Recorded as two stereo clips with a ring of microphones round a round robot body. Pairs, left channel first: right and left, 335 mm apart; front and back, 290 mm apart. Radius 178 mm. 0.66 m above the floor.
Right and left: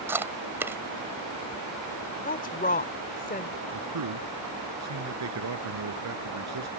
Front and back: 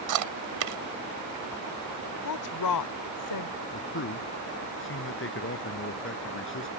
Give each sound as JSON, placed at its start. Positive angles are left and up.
{"t": 0.1, "sound": "chewing", "azimuth_deg": 175}
{"t": 2.2, "sound": "a woman speaking", "azimuth_deg": -25}
{"t": 3.7, "sound": "a man speaking", "azimuth_deg": 45}